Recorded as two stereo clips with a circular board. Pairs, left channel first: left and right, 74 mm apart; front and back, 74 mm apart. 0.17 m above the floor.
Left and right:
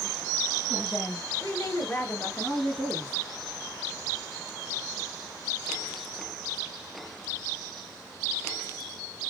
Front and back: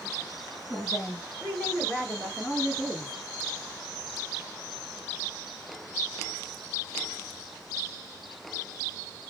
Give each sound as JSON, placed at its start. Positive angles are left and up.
{"t": 0.7, "sound": "a woman speaking", "azimuth_deg": 90, "distance_m": 1.7}